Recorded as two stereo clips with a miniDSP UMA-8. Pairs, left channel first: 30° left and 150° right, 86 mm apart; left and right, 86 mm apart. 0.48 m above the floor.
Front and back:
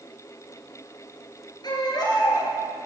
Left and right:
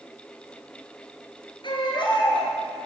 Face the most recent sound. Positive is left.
turn(degrees=65)